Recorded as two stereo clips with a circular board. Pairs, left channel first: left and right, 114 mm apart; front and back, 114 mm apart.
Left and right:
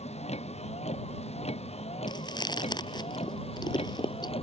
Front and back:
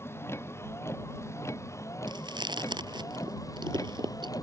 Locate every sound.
0.0 s a vehicle: 70° left; by 4.4 s 60° left
2.1 s chewing: 135° left